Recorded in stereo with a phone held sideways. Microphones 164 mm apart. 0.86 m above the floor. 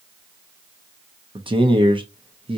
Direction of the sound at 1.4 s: 30° right (ahead or behind).